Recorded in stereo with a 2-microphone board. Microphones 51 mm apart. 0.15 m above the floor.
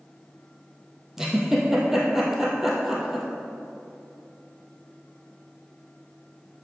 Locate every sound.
1.2 s a giggle: 10° right (ahead or behind), 1.9 m